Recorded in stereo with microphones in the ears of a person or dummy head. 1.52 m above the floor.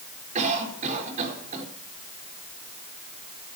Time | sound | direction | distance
0.3 | a cough | 40° right (ahead or behind) | 4 m